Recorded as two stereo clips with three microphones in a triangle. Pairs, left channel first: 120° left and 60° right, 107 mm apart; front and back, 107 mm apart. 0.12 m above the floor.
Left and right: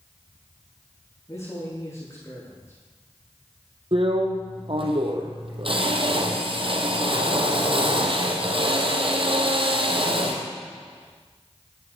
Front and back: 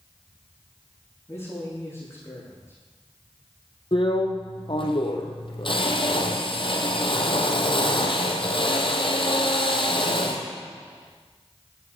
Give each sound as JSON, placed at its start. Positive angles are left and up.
{"t": 1.3, "sound": "a man speaking", "azimuth_deg": 60, "distance_m": 9.5}
{"t": 3.9, "sound": "a drill", "azimuth_deg": -35, "distance_m": 2.5}